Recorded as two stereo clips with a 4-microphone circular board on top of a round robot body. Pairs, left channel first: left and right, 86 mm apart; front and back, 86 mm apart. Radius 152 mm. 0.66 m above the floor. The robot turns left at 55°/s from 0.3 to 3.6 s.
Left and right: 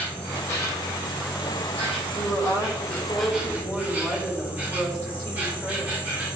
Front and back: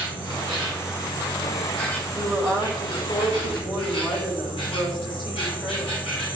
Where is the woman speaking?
100° left, 2.5 m; by 5.9 s 20° left, 2.5 m.